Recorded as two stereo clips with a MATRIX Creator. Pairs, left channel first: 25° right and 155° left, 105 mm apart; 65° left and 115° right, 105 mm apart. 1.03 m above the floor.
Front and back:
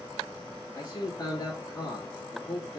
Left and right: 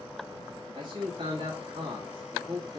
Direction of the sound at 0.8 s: 75° right.